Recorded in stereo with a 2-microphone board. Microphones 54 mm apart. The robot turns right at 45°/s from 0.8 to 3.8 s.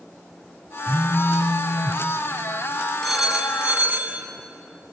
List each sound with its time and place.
0.9 s a phone buzzing: 25° left, 0.8 m; by 2.0 s 80° left, 0.8 m
3.0 s a phone ringing: 175° left, 2 m; by 4.2 s 150° right, 2 m